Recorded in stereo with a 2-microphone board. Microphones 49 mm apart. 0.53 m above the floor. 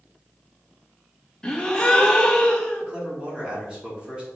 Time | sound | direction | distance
1.4 | a gasp | 15° left (ahead or behind) | 0.7 m
2.8 | a man speaking | 20° right (ahead or behind) | 1.7 m